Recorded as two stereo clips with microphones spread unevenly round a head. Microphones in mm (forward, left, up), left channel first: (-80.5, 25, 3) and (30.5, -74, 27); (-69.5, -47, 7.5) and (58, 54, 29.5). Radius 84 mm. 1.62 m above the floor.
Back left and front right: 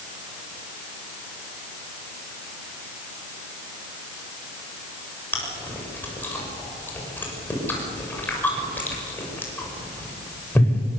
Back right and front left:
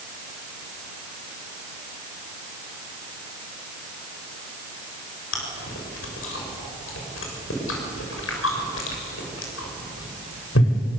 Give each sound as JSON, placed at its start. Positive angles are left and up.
{"t": 5.3, "sound": "chewing", "azimuth_deg": -140, "distance_m": 6.5}